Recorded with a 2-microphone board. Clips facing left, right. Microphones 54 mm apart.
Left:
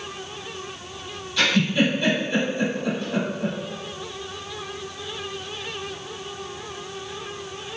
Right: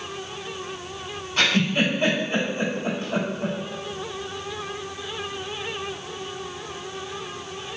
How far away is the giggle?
About 2.0 m.